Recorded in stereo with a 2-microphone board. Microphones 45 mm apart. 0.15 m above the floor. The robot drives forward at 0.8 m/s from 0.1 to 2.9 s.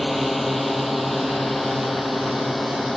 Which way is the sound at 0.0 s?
Centre (ahead or behind).